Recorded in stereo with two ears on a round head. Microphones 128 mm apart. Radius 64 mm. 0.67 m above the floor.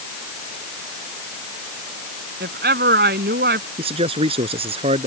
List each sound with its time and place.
2.4 s a woman speaking: 75° right (ahead or behind)
3.8 s a man speaking: 40° right (ahead or behind)